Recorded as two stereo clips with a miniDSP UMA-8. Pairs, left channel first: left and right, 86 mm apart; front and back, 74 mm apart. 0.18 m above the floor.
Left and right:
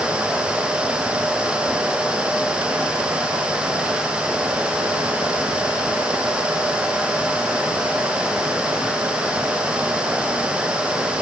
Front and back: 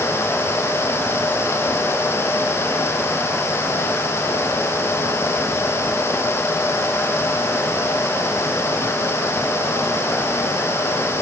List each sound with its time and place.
Only background noise.